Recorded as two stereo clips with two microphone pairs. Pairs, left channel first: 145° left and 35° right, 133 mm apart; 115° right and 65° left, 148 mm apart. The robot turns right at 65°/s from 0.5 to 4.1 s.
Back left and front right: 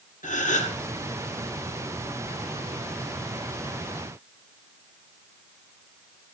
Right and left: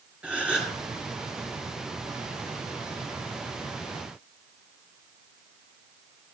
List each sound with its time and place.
0.2 s a gasp: 150° left, 2 m; by 0.8 s 165° left, 2 m